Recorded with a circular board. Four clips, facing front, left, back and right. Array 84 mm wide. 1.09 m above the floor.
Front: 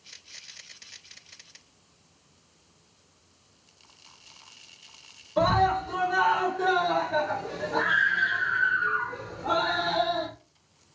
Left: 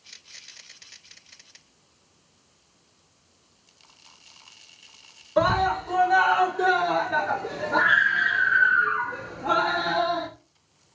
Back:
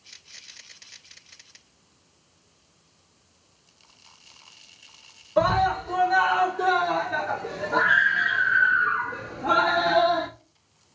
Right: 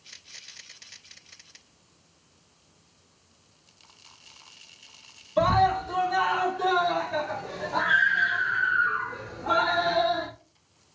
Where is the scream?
115° left, 4.5 m; by 10.3 s 165° left, 1.9 m.